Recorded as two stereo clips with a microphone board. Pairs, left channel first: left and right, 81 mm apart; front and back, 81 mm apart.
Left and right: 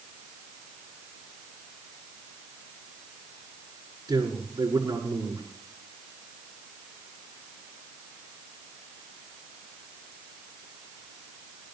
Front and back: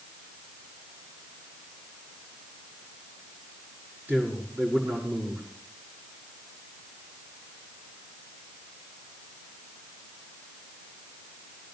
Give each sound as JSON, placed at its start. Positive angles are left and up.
{"t": 4.1, "sound": "a man speaking", "azimuth_deg": -115, "distance_m": 6.0}